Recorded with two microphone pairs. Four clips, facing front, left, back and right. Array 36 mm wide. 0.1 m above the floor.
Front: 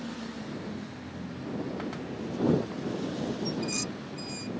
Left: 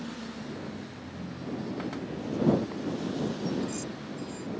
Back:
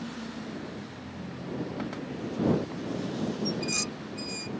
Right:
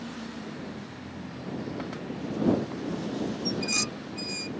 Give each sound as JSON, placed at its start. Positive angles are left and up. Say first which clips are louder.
{"t": 1.0, "sound": "a ringtone", "louder": "even, front 1 dB", "azimuth_deg": 115}
{"t": 3.5, "sound": "dishes clattering", "louder": "right 2 dB, back 1 dB", "azimuth_deg": -105}